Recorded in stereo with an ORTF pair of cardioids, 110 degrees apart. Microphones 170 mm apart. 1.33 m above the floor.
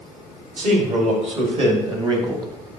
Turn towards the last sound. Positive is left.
turn(degrees=-20)